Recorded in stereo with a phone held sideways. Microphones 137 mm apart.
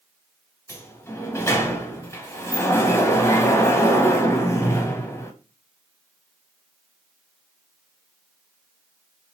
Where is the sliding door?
20° left (ahead or behind), 0.7 m.